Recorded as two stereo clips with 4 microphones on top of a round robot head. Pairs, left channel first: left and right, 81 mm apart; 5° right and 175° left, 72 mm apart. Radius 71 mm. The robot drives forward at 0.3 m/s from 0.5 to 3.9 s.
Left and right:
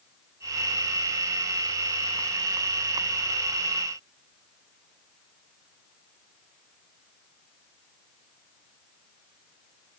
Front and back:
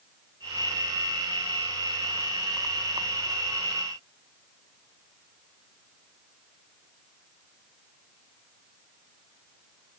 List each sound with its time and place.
Only background noise.